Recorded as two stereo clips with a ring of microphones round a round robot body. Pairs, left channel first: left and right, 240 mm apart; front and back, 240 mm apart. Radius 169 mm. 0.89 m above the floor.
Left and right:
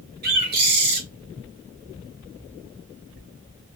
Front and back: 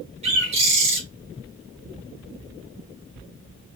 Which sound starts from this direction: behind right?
A bird, at 0.2 s.